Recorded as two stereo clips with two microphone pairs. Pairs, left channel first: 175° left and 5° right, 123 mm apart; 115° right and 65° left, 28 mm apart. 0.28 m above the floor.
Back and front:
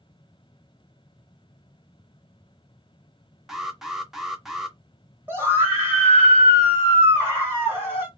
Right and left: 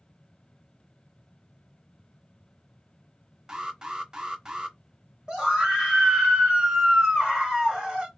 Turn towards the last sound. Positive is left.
turn(degrees=45)